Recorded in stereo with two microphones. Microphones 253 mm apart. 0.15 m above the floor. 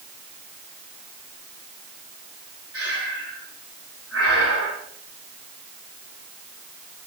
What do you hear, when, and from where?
2.7 s breathing: 65° right (ahead or behind), 6 m